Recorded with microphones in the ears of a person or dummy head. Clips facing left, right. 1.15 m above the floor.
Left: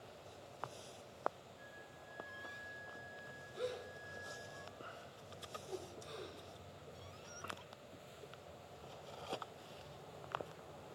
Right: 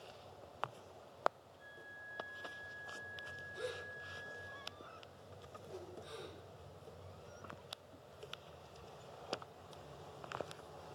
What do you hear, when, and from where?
1.6 s a flute: 40° left (ahead or behind), 4 m
3.5 s a gasp: 40° left (ahead or behind), 6 m
5.7 s a whoosh: 85° left, 4 m